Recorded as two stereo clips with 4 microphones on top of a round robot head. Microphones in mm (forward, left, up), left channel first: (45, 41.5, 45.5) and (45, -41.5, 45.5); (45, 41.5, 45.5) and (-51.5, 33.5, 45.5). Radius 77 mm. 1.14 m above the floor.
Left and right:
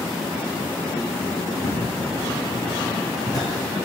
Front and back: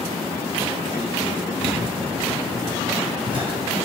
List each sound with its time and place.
1.6 s footsteps: 130° left, 3.5 m; by 3.9 s 160° left, 4 m